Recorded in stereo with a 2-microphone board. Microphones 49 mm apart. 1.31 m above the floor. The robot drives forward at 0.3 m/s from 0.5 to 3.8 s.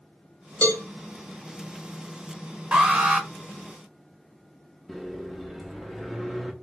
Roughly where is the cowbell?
Left.